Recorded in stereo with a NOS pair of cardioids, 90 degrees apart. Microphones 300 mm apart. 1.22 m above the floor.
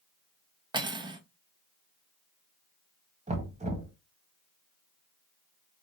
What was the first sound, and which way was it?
Cutlery clinking, 15° right.